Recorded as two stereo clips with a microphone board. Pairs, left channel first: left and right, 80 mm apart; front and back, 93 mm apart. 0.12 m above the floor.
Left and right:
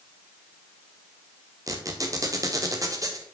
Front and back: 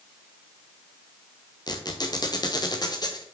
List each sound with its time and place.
1.7 s a squeak: 45° right, 1.3 m